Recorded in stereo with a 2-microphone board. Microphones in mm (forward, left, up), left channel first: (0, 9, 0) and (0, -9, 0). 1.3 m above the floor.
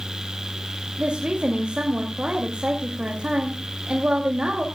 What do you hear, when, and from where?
1.0 s a woman speaking: 80° right, 2.5 m